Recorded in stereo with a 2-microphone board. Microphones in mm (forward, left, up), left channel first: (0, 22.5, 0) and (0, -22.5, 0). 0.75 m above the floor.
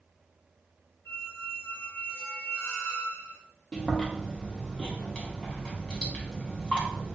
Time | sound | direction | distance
1.1 | a squeak | 70° left (ahead or behind) | 1.9 m
3.7 | chewing | 15° left (ahead or behind) | 0.9 m